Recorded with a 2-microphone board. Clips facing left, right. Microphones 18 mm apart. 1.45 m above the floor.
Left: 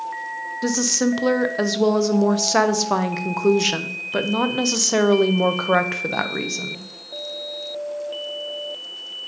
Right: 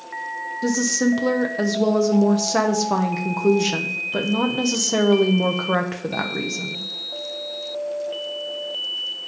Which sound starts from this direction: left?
A woman speaking, at 0.6 s.